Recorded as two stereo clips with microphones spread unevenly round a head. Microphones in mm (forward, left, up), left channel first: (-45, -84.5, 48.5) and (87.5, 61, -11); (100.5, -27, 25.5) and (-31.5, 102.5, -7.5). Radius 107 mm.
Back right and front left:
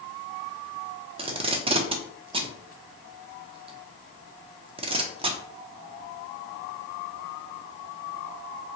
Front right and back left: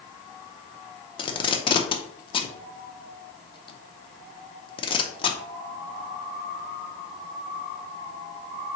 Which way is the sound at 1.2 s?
20° left.